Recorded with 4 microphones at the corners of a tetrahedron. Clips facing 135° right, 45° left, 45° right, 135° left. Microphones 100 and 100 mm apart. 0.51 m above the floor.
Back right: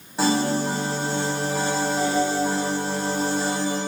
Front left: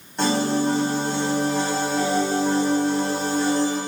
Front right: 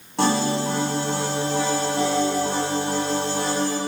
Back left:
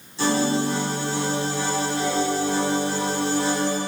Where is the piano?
50° right, 3 m.